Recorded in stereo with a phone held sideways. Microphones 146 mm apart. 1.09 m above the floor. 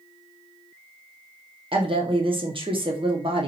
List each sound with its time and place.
1.7 s a woman speaking: 35° right (ahead or behind), 0.6 m